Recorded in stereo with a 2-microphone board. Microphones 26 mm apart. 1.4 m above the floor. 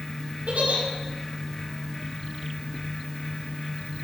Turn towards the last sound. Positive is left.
turn(degrees=-75)  # may be behind; listen again after turning